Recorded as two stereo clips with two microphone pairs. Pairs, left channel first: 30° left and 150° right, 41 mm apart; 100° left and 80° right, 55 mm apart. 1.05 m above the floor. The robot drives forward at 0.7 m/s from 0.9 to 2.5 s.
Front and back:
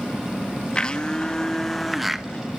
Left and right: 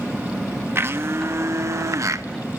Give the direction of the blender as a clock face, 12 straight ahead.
1 o'clock.